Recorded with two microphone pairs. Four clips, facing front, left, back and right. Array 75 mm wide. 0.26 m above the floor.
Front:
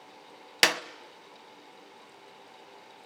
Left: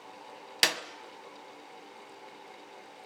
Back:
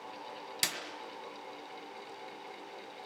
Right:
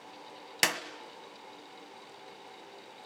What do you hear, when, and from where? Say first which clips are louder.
0.6 s a clap: even, front 14 dB; straight ahead, 1.2 m